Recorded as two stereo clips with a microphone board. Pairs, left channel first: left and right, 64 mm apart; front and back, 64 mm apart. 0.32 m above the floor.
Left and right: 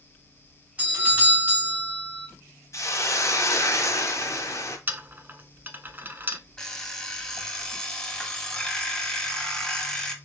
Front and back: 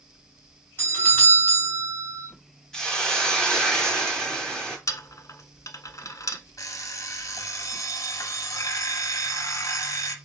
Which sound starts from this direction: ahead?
An alarm clock, at 6.6 s.